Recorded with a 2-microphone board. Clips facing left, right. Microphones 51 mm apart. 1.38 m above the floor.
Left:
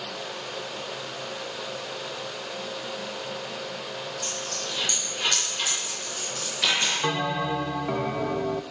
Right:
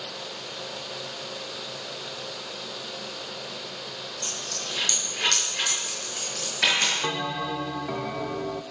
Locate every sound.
4.2 s a dropped coin: 60° right (ahead or behind), 7 m
7.0 s a bell: 15° left (ahead or behind), 0.6 m